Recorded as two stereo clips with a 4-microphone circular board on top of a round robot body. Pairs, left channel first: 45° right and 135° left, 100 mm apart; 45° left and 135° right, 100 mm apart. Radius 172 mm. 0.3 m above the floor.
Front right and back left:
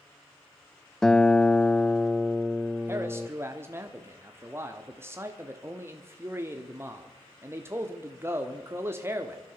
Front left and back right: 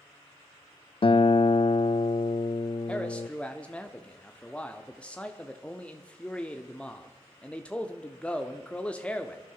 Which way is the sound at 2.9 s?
110° left.